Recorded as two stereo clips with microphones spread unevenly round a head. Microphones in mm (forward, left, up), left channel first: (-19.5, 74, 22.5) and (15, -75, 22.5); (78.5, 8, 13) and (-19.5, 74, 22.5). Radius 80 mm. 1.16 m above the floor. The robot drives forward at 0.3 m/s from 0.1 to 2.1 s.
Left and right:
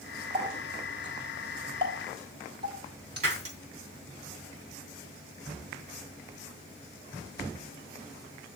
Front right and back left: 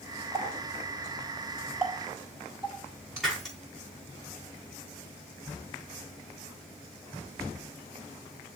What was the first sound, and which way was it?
A running tap, 140° right.